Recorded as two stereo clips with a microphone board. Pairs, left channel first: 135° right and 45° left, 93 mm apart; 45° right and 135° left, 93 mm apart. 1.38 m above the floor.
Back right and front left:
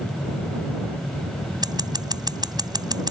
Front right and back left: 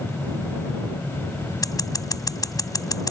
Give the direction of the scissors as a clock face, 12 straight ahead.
12 o'clock.